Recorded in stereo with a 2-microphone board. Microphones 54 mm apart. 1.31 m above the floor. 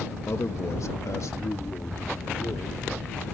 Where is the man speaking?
60° left (ahead or behind); by 3.3 s 85° left.